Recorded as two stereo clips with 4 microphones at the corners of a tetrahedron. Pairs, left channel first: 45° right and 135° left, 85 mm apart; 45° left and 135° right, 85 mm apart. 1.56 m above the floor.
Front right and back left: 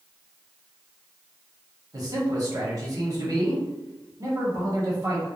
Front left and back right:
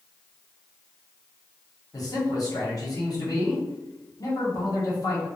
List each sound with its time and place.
1.9 s a man speaking: 90° left, 1.0 m